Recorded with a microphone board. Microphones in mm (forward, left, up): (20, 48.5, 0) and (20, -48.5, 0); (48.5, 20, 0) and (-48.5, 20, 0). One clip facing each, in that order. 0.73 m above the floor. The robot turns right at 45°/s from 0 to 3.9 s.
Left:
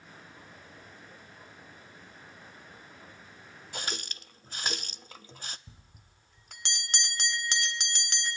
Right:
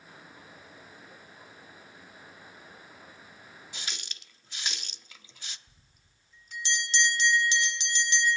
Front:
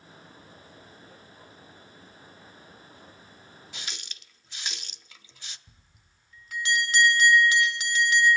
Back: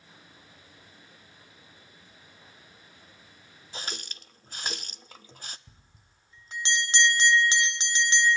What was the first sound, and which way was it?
A running tap, 125° left.